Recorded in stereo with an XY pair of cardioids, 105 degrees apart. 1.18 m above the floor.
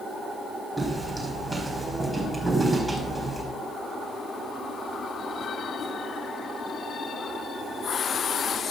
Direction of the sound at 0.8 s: 10° right.